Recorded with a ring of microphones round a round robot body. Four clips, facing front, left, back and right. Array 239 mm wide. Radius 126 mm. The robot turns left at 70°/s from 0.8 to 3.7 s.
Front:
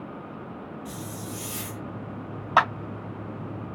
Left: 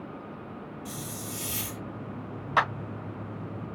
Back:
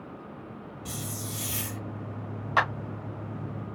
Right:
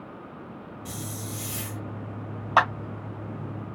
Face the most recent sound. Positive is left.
turn(degrees=-125)